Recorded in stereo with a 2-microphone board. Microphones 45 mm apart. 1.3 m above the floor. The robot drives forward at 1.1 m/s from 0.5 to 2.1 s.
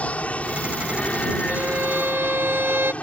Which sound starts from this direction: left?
An aircraft, at 0.0 s.